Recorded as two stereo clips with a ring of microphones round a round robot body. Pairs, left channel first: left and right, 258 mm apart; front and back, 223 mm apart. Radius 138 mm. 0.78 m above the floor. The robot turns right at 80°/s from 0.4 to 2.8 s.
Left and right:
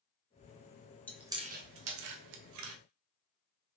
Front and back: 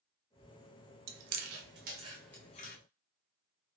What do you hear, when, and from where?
1.1 s chewing: 175° left, 0.5 m; by 2.8 s 50° right, 0.5 m